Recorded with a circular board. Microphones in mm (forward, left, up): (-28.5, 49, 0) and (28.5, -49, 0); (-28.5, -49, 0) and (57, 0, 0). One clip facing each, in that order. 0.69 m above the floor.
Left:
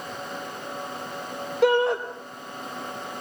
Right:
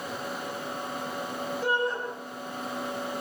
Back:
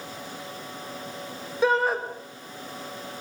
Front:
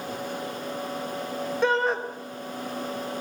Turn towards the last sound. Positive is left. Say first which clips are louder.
# left 9 dB, back 2 dB
turn(degrees=125)